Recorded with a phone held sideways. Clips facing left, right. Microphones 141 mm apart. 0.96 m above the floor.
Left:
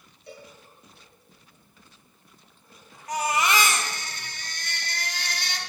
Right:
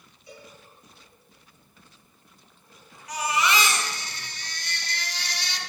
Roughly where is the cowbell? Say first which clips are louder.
Left 2 dB; left.